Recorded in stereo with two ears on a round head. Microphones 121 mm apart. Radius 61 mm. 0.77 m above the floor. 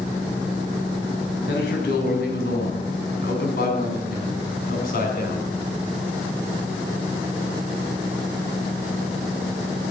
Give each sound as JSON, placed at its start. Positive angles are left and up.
{"t": 1.5, "sound": "a man speaking", "side_deg": 85, "distance_m": 5.0}